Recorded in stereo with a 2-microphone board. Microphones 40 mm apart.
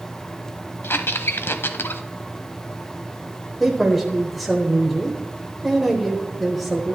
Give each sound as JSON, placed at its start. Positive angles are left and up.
{"t": 0.8, "sound": "a squeak", "side_deg": 70, "distance_m": 0.6}
{"t": 3.6, "sound": "a man speaking", "side_deg": 0, "distance_m": 1.1}